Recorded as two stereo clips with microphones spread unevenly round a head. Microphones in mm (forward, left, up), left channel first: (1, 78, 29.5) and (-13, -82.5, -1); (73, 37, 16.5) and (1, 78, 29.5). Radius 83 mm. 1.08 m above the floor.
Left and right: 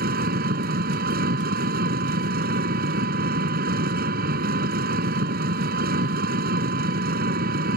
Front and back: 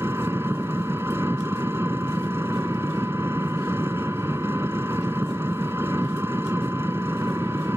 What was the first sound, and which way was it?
An engine running, 135° right.